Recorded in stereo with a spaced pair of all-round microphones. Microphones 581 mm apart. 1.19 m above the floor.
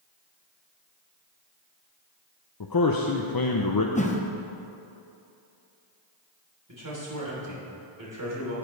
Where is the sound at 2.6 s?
40° left (ahead or behind), 0.6 m.